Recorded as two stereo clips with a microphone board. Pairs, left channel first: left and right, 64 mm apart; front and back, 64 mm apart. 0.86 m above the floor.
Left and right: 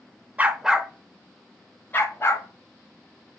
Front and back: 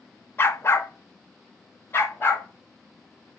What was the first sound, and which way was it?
A dog barking, 35° right.